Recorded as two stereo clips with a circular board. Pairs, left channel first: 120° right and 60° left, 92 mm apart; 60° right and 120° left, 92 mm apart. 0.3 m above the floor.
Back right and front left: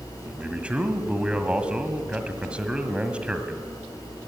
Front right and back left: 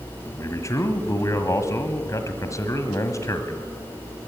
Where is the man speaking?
15° right, 1.7 m.